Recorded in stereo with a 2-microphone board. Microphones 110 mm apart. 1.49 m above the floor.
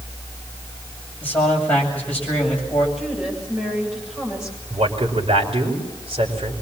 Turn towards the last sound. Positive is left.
turn(degrees=-60)  # may be behind; listen again after turning